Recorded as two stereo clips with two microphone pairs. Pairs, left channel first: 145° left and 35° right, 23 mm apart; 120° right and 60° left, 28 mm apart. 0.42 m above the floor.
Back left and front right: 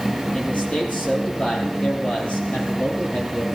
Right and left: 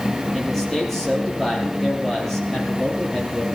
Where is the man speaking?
160° left, 9.5 m.